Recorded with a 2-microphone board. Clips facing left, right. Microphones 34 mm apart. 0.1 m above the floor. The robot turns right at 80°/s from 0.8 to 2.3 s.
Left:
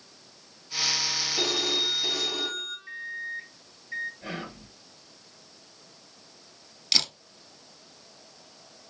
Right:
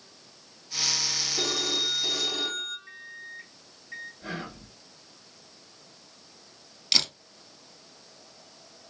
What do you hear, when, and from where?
1.4 s a phone ringing: 105° left, 1.7 m; by 2.8 s straight behind, 1.7 m
2.9 s a microwave: 10° left (ahead or behind), 1.0 m
4.2 s whispering: 30° left (ahead or behind), 2.0 m
6.9 s a camera shutter: centre (ahead or behind), 1.0 m